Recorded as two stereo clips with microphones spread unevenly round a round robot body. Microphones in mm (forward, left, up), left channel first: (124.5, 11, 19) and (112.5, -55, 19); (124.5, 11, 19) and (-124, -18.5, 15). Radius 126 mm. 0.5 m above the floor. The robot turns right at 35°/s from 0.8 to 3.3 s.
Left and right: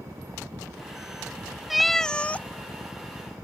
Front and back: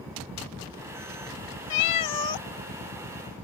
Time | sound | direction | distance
1.7 | a cat meowing | 15° right | ?